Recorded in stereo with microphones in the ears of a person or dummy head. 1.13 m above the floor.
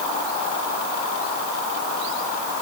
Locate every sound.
Only background noise.